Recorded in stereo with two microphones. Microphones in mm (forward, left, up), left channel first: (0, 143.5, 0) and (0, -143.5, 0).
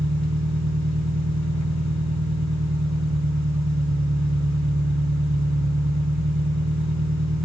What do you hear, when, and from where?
0.0 s an engine running: 75° right (ahead or behind), 1.0 m